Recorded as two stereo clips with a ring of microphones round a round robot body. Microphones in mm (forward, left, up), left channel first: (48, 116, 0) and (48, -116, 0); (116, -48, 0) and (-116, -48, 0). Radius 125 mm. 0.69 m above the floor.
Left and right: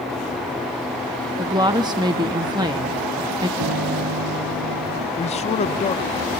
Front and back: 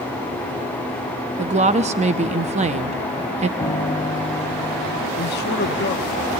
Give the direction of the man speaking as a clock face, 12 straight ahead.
11 o'clock.